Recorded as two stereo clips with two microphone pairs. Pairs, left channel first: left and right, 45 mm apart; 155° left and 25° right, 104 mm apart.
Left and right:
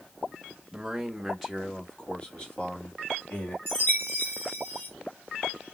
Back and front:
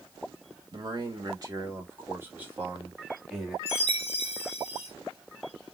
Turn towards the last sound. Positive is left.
turn(degrees=135)